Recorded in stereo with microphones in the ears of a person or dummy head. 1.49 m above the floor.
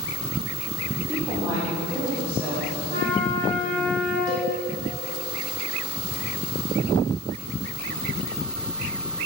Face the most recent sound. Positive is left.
turn(degrees=-80)